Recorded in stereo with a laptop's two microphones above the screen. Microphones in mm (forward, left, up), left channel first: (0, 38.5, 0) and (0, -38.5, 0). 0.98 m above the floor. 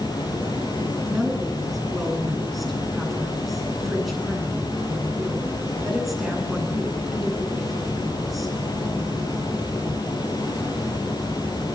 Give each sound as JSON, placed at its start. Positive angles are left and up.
{"t": 0.0, "sound": "running water", "side_deg": 65, "distance_m": 5.5}
{"t": 1.1, "sound": "a woman speaking", "side_deg": 0, "distance_m": 9.5}